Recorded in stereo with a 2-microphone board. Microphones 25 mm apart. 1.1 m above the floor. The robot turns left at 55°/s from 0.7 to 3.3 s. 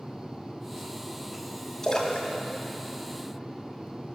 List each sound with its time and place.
1.8 s a splash: 25° left (ahead or behind), 1.5 m; by 3.9 s 70° left (ahead or behind), 1.5 m